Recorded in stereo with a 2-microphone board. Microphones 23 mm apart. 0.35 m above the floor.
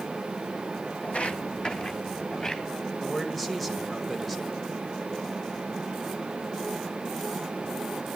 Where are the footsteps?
70° left (ahead or behind), 1.1 m; by 2.6 s 35° left (ahead or behind), 2.5 m.